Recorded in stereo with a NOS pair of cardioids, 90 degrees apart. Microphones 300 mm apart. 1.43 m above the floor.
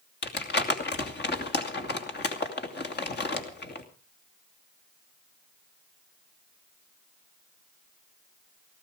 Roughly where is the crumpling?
Ahead left.